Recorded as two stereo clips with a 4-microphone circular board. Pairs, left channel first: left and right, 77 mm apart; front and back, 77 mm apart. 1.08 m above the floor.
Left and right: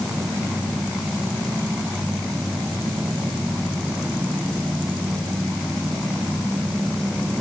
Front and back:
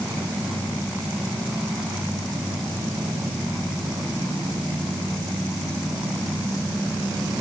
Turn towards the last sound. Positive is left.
No sound to turn to.